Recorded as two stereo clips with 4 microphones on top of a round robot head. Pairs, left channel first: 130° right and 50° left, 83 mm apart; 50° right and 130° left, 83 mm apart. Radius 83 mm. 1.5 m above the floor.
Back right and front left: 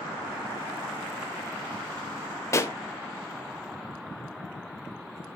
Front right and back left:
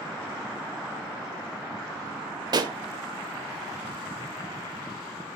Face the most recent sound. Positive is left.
turn(degrees=170)